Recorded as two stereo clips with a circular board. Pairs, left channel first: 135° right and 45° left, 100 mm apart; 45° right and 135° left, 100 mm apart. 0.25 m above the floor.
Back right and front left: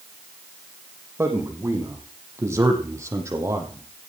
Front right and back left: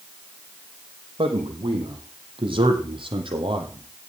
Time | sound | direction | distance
1.2 | a man speaking | 105° left | 9 m